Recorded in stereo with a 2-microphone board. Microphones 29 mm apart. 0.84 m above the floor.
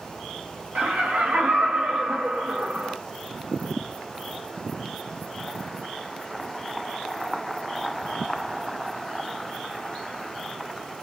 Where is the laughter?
60° right (ahead or behind), 1.5 m.